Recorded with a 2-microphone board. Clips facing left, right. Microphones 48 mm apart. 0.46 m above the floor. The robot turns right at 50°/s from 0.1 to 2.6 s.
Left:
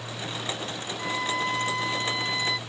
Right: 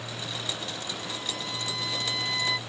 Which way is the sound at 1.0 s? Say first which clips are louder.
Left 8 dB; 100° left.